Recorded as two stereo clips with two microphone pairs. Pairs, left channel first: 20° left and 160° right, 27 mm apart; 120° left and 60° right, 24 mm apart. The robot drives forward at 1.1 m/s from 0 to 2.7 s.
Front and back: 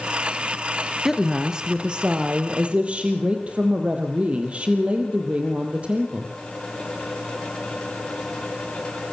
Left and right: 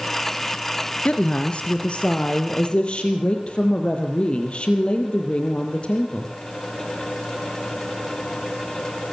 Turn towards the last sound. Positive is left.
turn(degrees=160)